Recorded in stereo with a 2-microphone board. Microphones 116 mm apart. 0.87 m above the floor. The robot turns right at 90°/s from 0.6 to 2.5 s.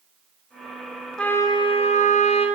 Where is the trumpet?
5° left, 5.5 m; by 2.5 s 125° left, 5.5 m.